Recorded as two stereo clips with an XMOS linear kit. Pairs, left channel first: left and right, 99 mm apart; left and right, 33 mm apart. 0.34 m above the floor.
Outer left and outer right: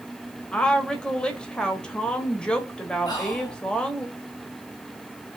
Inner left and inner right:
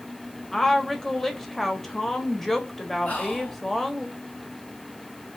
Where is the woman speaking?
10° left (ahead or behind), 1.3 m.